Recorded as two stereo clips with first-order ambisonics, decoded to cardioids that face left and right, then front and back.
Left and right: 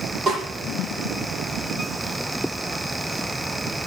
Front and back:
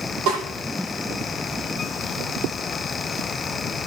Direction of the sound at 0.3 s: 160° right.